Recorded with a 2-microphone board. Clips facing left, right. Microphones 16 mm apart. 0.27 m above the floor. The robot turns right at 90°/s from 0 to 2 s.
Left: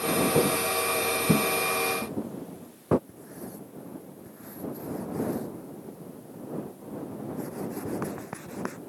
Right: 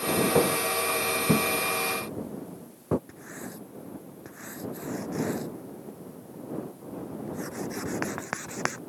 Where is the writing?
80° right.